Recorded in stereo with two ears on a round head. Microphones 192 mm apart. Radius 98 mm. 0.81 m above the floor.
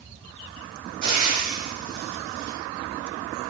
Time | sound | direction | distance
1.0 | frying | 40° right (ahead or behind) | 1.2 m